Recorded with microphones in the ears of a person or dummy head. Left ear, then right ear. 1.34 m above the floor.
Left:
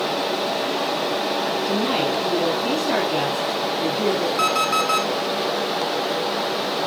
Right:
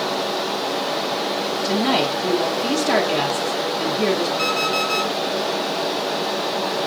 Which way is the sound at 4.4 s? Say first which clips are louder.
Left 1 dB; 45° left (ahead or behind).